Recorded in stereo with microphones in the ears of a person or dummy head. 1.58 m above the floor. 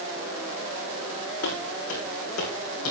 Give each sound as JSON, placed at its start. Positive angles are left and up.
{"t": 1.4, "sound": "footsteps", "side_deg": 65, "distance_m": 5.0}